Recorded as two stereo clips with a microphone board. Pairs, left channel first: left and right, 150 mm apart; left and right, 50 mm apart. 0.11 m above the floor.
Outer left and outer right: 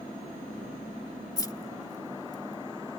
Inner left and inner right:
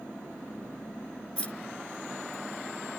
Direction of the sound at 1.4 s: 25° left (ahead or behind).